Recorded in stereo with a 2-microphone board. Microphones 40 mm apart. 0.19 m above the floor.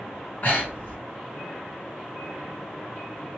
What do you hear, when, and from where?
0.4 s breathing: 45° left (ahead or behind), 1.5 m